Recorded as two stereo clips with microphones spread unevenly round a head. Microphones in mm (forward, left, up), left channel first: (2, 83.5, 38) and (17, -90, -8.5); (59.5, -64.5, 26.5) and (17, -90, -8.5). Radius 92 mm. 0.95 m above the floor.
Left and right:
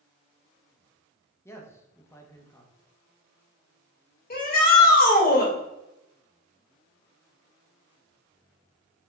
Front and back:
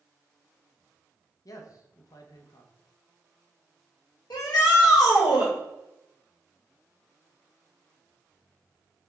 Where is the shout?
55° left, 1.5 m.